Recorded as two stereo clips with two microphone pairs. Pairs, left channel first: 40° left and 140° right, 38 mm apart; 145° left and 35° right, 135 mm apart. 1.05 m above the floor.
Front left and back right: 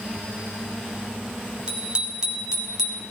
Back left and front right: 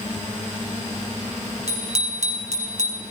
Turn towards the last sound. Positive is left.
turn(degrees=-55)